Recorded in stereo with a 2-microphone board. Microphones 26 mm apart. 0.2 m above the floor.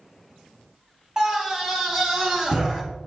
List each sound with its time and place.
1.2 s a scream: 20° right (ahead or behind), 1.2 m; by 2.8 s 30° right (ahead or behind), 2.5 m